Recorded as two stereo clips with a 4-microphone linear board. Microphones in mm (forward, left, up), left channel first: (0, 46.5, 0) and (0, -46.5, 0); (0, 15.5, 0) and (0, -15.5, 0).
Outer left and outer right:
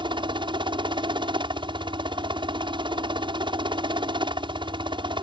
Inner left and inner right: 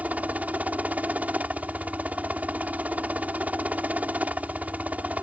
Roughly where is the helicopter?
Right.